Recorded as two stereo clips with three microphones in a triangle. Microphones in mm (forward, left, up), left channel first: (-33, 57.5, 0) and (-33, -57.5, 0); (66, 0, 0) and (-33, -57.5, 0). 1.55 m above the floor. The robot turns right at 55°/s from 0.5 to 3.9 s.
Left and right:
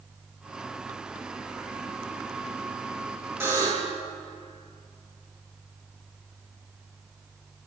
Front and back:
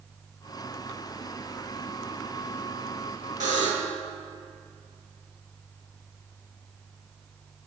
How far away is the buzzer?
About 2.5 m.